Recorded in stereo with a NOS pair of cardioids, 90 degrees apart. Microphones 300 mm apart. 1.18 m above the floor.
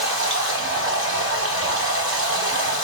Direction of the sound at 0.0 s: 45° right.